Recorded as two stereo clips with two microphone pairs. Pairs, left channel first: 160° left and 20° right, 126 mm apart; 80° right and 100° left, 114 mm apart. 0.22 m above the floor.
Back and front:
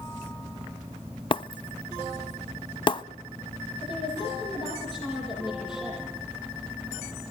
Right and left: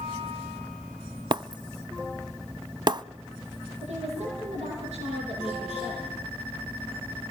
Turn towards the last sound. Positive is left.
turn(degrees=110)